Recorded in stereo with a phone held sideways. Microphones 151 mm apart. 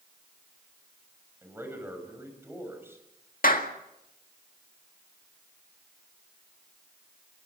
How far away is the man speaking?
About 6 m.